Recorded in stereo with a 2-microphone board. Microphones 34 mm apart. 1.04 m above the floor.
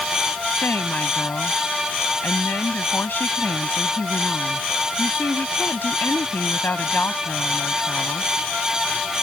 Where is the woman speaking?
70° left (ahead or behind).